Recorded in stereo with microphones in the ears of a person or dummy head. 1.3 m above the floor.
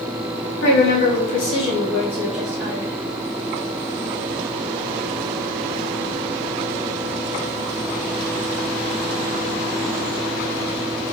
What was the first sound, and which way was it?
A woman speaking, 70° left (ahead or behind).